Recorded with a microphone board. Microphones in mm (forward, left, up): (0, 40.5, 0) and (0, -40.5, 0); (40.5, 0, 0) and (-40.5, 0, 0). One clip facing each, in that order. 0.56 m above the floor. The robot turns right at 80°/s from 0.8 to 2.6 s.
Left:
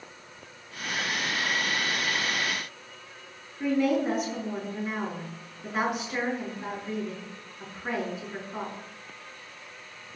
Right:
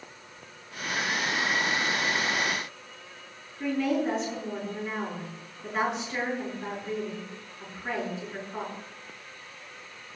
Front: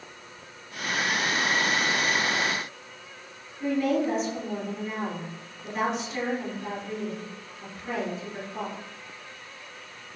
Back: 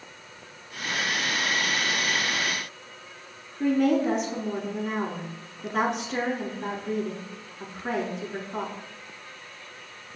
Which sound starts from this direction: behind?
A woman speaking, at 3.6 s.